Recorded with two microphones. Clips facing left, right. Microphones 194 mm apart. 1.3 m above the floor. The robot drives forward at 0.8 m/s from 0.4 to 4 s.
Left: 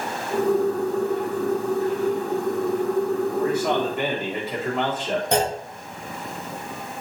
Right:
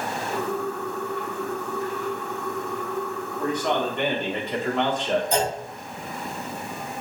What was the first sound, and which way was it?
A man speaking, 10° left (ahead or behind).